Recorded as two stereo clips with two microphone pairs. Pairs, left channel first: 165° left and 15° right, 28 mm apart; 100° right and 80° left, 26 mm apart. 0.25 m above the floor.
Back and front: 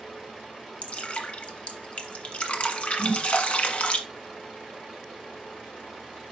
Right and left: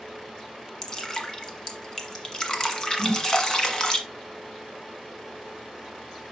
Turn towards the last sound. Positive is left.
turn(degrees=-120)